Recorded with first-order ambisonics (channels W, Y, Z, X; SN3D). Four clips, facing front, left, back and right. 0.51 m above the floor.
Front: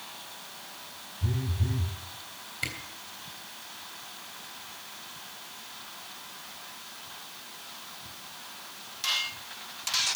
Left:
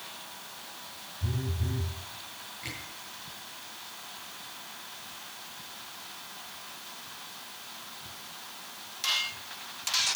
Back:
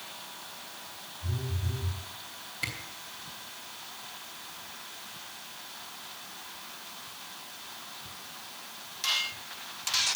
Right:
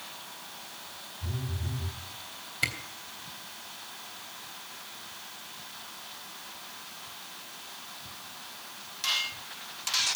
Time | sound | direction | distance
1.2 | a phone buzzing | 25° left | 2.5 m
2.6 | a camera shutter | 75° right | 3 m